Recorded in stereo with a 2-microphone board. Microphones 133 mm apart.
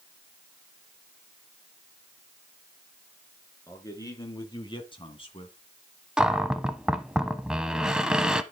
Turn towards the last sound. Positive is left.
turn(degrees=-5)  # may be behind; listen again after turning